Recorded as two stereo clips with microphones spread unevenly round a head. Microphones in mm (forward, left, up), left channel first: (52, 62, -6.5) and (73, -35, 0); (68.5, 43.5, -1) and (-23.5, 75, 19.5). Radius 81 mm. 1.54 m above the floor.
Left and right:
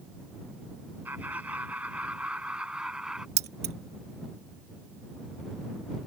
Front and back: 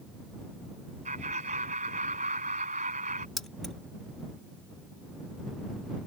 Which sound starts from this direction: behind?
Laughter, at 1.1 s.